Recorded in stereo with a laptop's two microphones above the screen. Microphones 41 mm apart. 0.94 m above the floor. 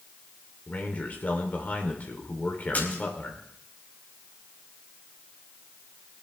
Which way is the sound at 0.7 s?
40° left (ahead or behind).